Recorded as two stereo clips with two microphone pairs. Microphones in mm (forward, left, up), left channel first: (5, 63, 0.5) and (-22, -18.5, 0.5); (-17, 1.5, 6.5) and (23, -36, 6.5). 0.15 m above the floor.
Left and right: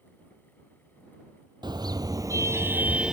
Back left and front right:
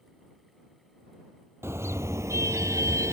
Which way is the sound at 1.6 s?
80° right.